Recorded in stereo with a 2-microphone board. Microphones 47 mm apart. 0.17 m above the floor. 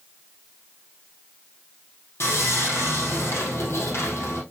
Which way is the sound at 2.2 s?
70° left (ahead or behind).